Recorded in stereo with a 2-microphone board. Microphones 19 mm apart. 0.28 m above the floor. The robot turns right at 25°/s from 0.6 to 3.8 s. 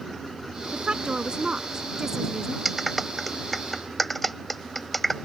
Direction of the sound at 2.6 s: 10° right (ahead or behind).